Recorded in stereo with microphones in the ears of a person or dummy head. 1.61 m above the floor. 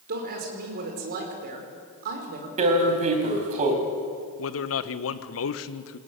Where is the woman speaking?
50° right (ahead or behind), 5 m.